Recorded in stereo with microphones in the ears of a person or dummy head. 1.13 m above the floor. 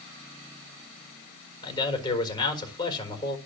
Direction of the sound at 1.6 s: 25° left (ahead or behind).